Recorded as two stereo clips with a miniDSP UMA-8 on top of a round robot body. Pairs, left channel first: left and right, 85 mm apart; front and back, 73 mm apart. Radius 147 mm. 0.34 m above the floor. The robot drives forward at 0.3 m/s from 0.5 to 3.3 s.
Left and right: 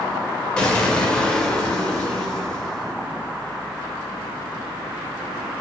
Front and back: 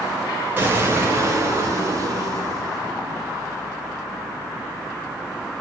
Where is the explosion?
160° left, 1.0 m; by 2.9 s 175° left, 1.4 m.